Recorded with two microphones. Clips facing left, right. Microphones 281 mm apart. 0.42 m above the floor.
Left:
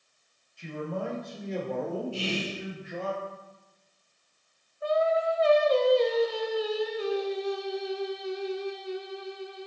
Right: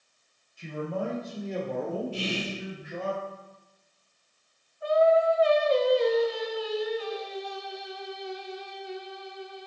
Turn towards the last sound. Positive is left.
turn(degrees=50)  # may be behind; listen again after turning